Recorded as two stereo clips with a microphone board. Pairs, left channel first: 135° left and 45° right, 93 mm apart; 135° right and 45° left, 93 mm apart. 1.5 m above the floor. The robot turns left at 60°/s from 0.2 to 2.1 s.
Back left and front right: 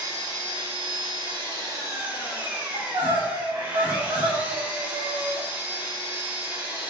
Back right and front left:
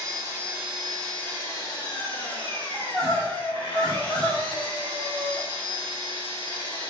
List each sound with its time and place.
0.0 s an engine running: straight ahead, 1.5 m; by 6.9 s 110° right, 1.5 m
2.7 s crying: 45° right, 1.5 m